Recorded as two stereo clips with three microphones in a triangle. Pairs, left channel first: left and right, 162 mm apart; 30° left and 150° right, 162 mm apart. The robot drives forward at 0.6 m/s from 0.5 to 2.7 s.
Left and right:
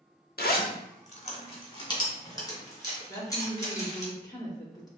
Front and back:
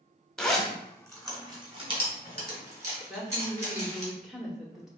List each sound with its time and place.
0.4 s a zipper: 115° left, 0.6 m; by 4.1 s 160° left, 1.7 m
3.1 s a woman speaking: 125° left, 0.9 m